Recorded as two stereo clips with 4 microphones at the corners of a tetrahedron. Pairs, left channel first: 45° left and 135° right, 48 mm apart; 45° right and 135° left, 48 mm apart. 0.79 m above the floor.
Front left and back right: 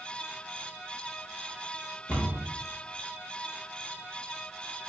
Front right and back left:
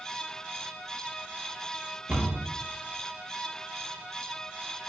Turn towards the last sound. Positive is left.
turn(degrees=85)